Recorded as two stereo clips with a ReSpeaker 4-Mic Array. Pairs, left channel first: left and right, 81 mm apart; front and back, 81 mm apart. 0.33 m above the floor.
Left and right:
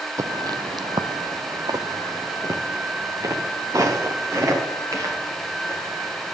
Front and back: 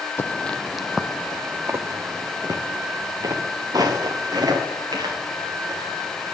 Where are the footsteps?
55° right, 0.7 m; by 6.3 s 145° right, 4 m.